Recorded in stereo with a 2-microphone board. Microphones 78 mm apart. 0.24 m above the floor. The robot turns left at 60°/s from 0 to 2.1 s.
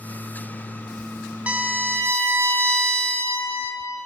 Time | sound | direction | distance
1.5 | a violin | 30° right | 0.7 m